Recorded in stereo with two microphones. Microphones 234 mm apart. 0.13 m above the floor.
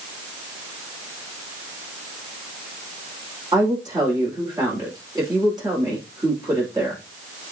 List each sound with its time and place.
3.5 s a woman speaking: 15° right (ahead or behind), 8 m